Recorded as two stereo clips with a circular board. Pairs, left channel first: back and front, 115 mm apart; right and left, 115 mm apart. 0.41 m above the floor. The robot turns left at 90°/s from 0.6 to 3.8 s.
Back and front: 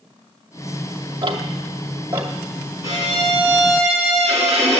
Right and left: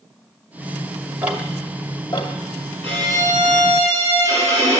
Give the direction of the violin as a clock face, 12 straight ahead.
10 o'clock.